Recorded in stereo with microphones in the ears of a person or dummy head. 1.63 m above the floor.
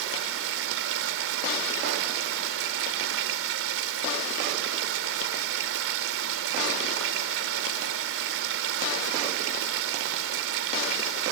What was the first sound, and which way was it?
Running water, 80° right.